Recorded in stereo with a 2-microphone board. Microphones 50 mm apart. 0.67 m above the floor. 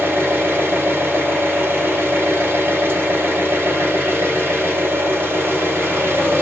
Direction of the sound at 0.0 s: 50° right (ahead or behind).